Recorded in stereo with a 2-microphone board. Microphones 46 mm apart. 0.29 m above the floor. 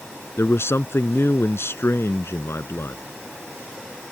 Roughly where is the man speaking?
Left.